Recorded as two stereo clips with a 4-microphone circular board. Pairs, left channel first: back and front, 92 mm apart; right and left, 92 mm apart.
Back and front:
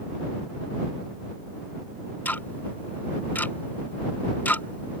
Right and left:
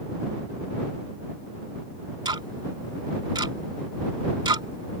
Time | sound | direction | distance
2.2 | ticking | 115° left | ?